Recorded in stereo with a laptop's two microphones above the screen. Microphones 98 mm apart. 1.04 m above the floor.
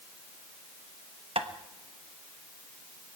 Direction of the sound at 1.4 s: 75° right (ahead or behind).